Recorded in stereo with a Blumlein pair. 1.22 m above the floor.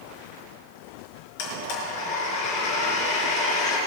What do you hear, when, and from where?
1.4 s a blender: 50° left, 4.5 m